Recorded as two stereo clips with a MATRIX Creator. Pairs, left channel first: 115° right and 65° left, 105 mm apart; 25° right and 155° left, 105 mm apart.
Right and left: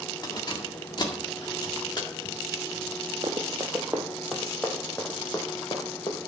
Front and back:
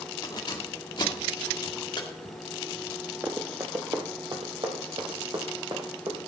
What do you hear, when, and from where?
0.2 s keys jangling: 65° right, 1.8 m
3.2 s running footsteps: 100° left, 2 m; by 6.2 s 160° right, 3.5 m